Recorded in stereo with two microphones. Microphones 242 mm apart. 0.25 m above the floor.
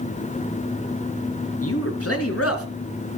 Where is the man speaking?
70° left (ahead or behind), 4 m; by 2.7 s 65° left (ahead or behind), 3.5 m.